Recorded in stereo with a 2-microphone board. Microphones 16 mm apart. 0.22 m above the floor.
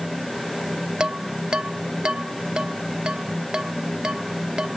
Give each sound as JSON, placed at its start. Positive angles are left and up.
{"t": 1.0, "sound": "dishes clattering", "side_deg": -85}